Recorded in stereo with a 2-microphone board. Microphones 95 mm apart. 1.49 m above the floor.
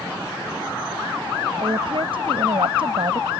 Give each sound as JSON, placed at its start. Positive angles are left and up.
{"t": 1.6, "sound": "a woman speaking", "side_deg": -65}